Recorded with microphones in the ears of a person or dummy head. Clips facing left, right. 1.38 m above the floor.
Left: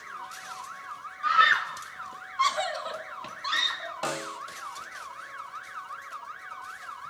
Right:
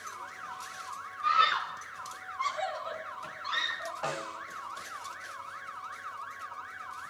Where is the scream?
5° left (ahead or behind), 1.4 m; by 3.9 s 65° left (ahead or behind), 3.5 m.